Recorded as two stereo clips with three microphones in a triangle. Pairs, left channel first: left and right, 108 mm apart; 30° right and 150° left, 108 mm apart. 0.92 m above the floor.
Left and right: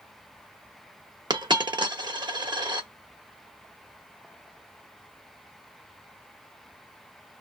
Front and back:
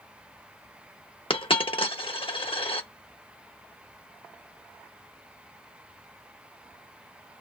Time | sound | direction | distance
1.3 | a dropped coin | 50° right | 0.8 m